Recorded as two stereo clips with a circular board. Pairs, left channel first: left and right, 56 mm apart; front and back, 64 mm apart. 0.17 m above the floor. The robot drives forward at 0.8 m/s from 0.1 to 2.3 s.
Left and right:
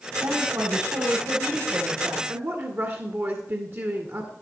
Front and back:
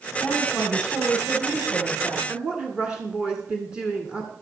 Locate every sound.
0.2 s a woman speaking: 100° right, 7 m; by 2.2 s 110° right, 7.5 m
2.3 s a woman speaking: 110° right, 1.6 m